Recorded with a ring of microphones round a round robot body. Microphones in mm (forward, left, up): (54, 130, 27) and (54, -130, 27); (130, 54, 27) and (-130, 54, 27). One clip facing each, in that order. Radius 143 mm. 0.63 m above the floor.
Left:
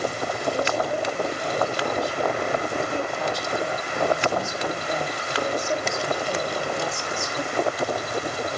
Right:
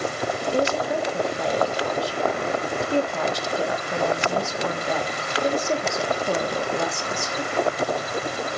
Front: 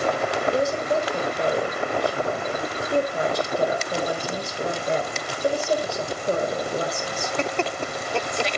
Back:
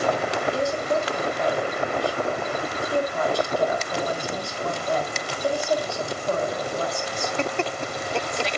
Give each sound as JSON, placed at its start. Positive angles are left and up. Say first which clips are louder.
{"t": 0.4, "sound": "a woman speaking", "louder": "right 3 dB, front 2 dB", "azimuth_deg": -70, "distance_m": 3.0}